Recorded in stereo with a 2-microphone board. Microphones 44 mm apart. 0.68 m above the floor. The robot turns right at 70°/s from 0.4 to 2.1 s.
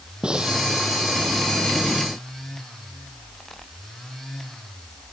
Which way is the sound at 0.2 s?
20° right (ahead or behind).